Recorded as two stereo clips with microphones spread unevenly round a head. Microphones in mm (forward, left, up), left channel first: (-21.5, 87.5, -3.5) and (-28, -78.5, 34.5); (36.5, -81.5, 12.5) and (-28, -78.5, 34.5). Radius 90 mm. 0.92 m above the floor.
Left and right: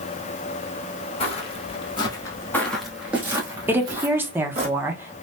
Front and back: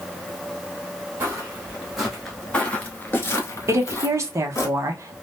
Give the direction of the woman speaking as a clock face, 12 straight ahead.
6 o'clock.